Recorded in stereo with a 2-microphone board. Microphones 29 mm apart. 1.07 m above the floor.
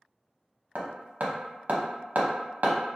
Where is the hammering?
70° right (ahead or behind), 0.6 m.